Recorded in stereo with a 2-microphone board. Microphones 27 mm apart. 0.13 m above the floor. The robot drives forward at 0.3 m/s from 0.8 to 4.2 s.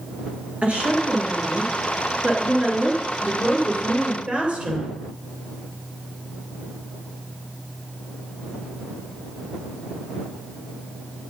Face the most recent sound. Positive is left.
turn(degrees=-50)  # may be behind; listen again after turning